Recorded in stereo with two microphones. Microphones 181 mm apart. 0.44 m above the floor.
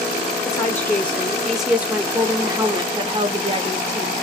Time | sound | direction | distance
0.5 | a woman speaking | 15° left (ahead or behind) | 1.4 m